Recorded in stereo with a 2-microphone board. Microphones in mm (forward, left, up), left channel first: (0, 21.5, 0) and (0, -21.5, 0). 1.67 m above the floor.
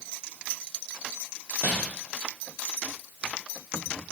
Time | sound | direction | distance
1.6 | crumpling | 55° right (ahead or behind) | 2.5 m